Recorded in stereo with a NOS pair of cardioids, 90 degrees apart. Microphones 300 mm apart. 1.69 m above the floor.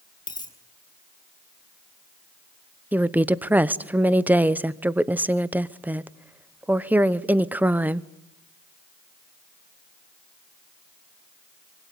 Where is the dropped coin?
15° left, 5 m.